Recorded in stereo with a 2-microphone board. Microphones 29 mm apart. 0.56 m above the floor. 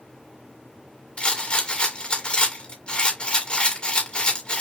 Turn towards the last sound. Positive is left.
turn(degrees=40)  # may be behind; listen again after turning